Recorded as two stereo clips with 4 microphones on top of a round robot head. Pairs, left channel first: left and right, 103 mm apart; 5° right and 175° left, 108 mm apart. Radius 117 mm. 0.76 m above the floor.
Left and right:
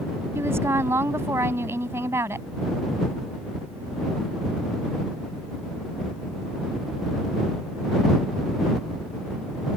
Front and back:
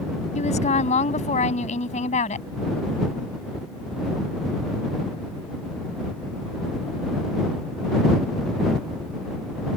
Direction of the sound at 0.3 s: 20° right.